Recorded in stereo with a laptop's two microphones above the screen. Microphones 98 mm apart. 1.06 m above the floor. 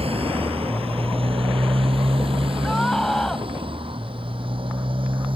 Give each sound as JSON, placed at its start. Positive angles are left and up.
{"t": 0.0, "sound": "a motorcycle", "side_deg": -80}
{"t": 2.6, "sound": "a scream", "side_deg": 5}